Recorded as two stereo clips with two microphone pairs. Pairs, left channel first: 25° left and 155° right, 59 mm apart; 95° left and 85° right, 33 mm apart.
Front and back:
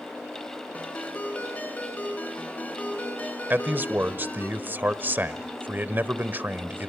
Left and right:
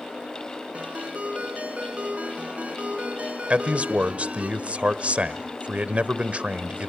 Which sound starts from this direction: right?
A man speaking, at 3.5 s.